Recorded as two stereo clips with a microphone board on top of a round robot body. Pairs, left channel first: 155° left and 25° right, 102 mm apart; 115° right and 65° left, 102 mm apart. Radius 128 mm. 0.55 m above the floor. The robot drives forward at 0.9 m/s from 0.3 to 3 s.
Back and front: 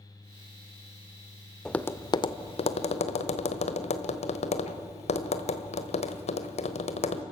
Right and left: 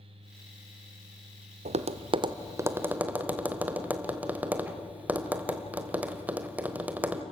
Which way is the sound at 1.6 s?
70° left.